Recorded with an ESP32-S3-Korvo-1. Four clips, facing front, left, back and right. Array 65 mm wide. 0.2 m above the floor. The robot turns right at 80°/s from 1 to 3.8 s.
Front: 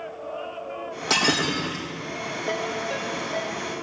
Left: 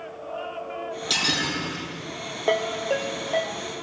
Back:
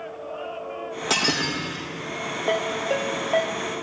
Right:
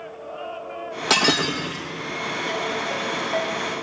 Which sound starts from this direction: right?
Breaking glass, at 1.1 s.